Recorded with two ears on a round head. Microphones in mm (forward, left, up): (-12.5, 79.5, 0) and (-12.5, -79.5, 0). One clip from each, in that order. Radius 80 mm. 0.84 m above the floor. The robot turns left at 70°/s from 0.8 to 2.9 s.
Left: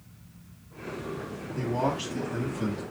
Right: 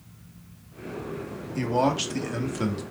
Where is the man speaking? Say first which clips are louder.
Right 5 dB; 55° right, 1.1 m; by 2.8 s 140° right, 1.1 m.